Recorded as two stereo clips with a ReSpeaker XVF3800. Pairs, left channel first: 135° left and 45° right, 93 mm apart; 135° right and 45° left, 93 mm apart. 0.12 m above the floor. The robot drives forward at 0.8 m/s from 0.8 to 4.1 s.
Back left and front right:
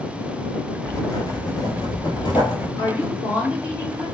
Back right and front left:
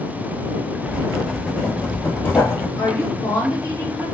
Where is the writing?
110° left, 0.9 m; by 2.7 s 165° left, 1.8 m.